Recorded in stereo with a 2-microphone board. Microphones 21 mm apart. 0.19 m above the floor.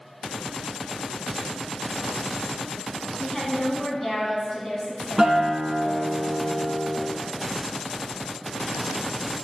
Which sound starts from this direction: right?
A guitar, at 5.2 s.